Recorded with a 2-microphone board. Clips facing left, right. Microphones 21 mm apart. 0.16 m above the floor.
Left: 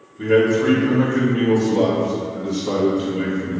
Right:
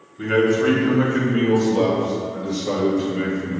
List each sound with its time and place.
0.2 s a man speaking: 35° right (ahead or behind), 1.6 m; by 3.6 s 40° right (ahead or behind), 3 m